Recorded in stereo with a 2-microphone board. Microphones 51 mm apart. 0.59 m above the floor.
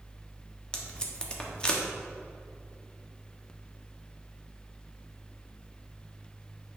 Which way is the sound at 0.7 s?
20° left (ahead or behind).